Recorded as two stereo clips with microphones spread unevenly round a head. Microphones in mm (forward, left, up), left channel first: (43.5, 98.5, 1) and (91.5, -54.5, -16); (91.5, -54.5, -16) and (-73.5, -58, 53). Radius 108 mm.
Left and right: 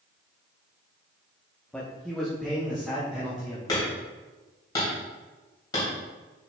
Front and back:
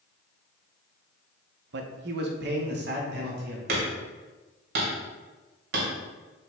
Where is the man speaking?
170° right, 0.8 m; by 3.6 s 160° right, 2.5 m.